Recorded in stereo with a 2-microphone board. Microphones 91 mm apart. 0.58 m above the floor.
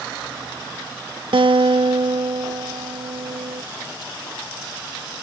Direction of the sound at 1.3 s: 75° right (ahead or behind).